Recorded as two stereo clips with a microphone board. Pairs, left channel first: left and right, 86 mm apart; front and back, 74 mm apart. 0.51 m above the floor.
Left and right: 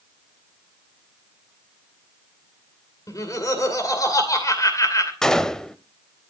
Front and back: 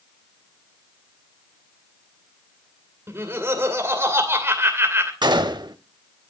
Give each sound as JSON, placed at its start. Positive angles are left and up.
{"t": 3.1, "sound": "laughter", "azimuth_deg": 130, "distance_m": 2.5}
{"t": 5.2, "sound": "a gunshot", "azimuth_deg": 175, "distance_m": 0.6}